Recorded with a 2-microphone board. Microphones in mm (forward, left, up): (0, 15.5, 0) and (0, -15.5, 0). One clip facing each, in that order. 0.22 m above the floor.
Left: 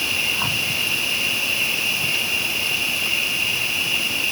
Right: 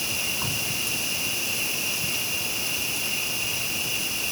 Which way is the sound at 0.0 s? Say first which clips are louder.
Left 7 dB; 30° left (ahead or behind).